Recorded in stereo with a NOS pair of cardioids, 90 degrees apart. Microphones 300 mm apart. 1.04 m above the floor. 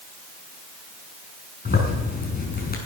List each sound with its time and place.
1.6 s a zipper: 30° left, 5.5 m